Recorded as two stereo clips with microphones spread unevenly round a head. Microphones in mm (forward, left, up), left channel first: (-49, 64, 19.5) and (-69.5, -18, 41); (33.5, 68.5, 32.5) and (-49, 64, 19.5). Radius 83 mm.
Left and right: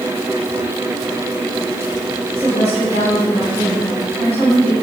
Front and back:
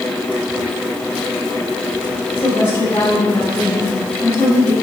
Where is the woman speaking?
60° right, 4 m.